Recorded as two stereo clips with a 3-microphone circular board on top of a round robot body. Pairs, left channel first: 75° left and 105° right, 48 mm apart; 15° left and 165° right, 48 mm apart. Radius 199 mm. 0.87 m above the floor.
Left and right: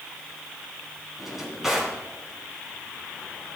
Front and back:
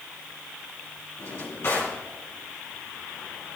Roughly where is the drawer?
Ahead right.